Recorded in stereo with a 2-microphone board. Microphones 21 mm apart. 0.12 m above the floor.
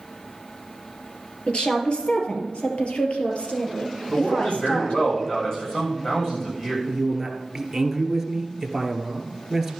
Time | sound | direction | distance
1.5 | a woman speaking | 55° left (ahead or behind) | 3 m
4.1 | a man speaking | 30° left (ahead or behind) | 7.5 m
6.9 | a man speaking | 5° right (ahead or behind) | 2.5 m